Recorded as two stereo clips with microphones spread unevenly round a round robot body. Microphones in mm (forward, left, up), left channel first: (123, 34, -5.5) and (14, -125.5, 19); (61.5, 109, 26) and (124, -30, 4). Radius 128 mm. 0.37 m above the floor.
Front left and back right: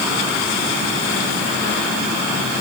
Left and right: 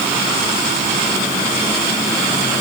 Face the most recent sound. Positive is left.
No sound to turn to.